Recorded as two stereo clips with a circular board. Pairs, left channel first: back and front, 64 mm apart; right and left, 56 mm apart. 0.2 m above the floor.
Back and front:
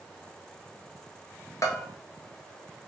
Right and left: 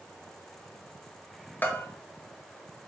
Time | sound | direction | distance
1.6 | a bell | 150° right | 0.8 m